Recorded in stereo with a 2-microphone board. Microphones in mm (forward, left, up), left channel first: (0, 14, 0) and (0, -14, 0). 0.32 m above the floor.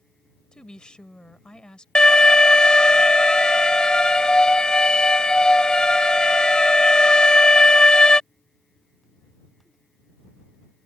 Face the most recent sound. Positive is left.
turn(degrees=30)  # may be behind; listen again after turning